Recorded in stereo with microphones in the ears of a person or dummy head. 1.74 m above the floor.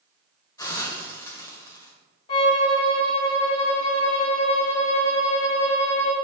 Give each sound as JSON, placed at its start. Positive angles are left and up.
{"t": 0.6, "sound": "a hiss", "side_deg": 25, "distance_m": 1.2}
{"t": 2.3, "sound": "a violin", "side_deg": 35, "distance_m": 2.5}